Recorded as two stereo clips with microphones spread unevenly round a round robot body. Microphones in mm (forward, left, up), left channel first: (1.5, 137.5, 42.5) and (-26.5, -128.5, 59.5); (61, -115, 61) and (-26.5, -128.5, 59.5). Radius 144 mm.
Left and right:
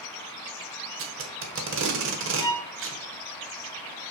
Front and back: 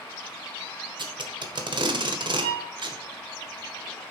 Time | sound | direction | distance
1.0 | tape being pulled | 140° right | 1.4 m
2.4 | a violin | 160° left | 1.4 m